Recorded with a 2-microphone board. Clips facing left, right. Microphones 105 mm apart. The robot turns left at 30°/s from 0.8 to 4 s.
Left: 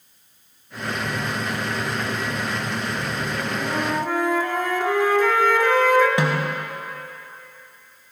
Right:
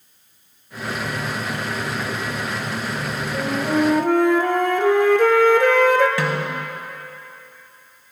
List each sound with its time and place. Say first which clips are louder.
3.3 s a flute: right 8 dB; 35° right (ahead or behind), 0.9 m; by 6.1 s 55° right (ahead or behind), 0.9 m
6.2 s a snare drum: left 1 dB; 20° left (ahead or behind), 1.3 m